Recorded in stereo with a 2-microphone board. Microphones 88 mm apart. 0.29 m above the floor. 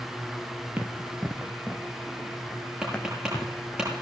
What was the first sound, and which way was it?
Running footsteps, 15° right (ahead or behind).